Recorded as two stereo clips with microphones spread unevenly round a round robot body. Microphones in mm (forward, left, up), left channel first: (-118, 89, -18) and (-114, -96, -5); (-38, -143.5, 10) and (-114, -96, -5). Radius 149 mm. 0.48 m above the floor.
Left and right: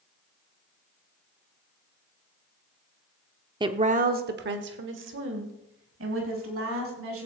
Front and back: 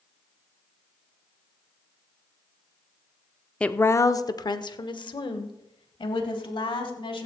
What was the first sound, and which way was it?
A woman speaking, 120° right.